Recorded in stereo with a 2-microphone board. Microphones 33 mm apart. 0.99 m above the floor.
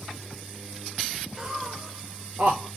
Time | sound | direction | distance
1.4 | laughter | 20° right (ahead or behind) | 0.9 m